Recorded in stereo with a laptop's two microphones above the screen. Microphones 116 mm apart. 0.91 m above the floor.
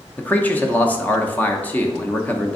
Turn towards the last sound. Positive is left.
turn(degrees=15)  # may be behind; listen again after turning